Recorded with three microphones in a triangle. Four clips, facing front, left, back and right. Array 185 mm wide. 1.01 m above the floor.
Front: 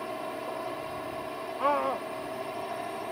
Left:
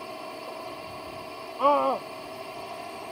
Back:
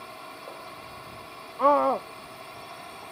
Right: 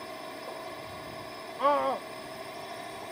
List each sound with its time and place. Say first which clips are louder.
0.0 s a drone: left 3 dB, front 7 dB; 10° left
1.6 s a scream: left 4 dB, back 7 dB; 160° left